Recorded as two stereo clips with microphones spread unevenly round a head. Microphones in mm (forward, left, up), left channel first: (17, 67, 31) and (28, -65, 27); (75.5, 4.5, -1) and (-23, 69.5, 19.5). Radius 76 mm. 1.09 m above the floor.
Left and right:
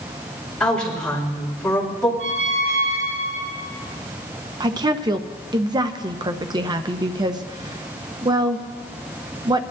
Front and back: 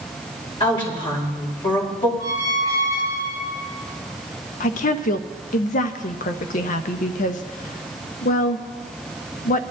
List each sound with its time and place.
0.6 s a woman speaking: 10° left, 5 m
2.2 s a squeak: 80° right, 5.5 m
4.6 s a woman speaking: 25° right, 0.8 m